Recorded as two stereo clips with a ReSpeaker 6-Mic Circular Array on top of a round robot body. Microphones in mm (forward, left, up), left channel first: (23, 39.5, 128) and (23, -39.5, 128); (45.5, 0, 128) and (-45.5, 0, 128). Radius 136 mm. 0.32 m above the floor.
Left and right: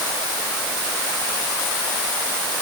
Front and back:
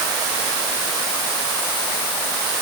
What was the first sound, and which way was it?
Only background noise.